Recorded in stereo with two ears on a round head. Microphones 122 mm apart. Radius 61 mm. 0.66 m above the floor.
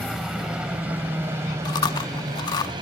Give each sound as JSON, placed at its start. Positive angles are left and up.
{"t": 0.0, "sound": "a helicopter", "side_deg": 0}
{"t": 1.6, "sound": "chewing", "side_deg": 30}